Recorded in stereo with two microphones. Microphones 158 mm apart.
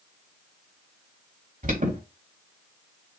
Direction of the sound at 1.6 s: 60° right (ahead or behind).